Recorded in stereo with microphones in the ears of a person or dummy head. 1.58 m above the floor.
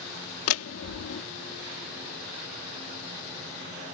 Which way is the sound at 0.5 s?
85° left.